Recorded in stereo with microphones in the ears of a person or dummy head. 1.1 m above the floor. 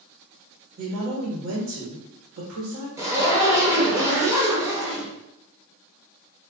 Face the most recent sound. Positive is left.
turn(degrees=-15)  # may be behind; listen again after turning